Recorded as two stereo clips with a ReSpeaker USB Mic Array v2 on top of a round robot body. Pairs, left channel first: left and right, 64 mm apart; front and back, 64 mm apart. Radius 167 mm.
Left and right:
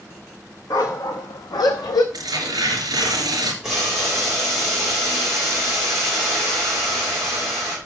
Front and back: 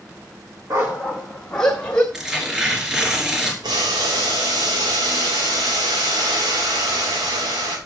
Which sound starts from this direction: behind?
Boiling, at 3.6 s.